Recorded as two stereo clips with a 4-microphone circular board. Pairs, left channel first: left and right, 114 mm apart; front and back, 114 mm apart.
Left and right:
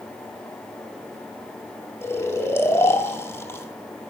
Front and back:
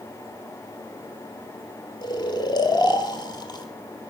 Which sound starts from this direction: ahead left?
Snoring, at 2.0 s.